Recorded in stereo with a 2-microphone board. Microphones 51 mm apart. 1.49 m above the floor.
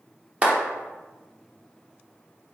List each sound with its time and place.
0.4 s a clap: 30° right (ahead or behind), 0.9 m